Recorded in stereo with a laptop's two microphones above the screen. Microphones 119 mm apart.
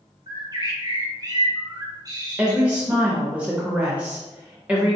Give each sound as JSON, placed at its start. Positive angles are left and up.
{"t": 0.3, "sound": "a bird", "side_deg": -30, "distance_m": 0.9}
{"t": 2.4, "sound": "a woman speaking", "side_deg": -10, "distance_m": 0.7}